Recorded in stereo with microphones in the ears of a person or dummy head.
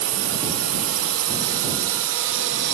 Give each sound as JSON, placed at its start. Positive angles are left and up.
{"t": 0.0, "sound": "a drone", "side_deg": -75}